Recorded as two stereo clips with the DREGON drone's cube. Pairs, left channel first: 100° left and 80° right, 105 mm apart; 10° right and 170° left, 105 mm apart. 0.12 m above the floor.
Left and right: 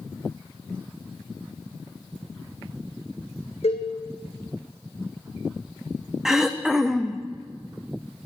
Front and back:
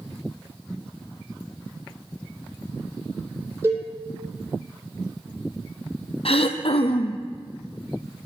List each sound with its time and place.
3.6 s a cowbell: 105° left, 3 m
6.2 s throat clearing: 5° left, 1.0 m